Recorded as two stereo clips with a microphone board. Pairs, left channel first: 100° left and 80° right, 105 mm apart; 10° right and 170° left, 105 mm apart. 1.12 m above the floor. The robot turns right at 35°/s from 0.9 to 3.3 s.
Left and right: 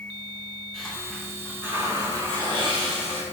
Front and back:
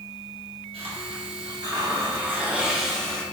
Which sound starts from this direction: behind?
A hiss, at 0.7 s.